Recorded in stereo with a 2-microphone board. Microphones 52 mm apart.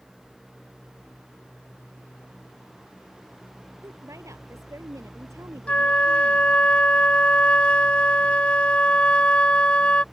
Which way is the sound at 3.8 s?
80° right.